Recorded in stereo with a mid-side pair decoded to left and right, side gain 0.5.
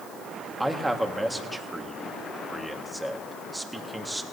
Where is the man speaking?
10° right, 1.6 m.